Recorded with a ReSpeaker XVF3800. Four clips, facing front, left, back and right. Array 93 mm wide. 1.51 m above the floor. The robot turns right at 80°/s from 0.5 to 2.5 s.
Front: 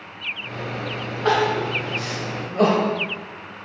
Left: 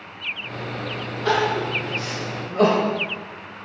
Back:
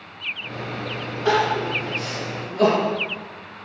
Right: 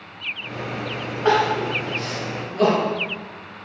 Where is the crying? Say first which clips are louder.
Right 2 dB, even; 55° right, 1.1 m; by 2.9 s 45° left, 1.1 m.